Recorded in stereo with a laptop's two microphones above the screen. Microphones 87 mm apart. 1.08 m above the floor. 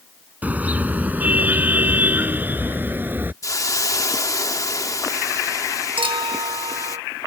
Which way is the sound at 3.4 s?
40° left (ahead or behind).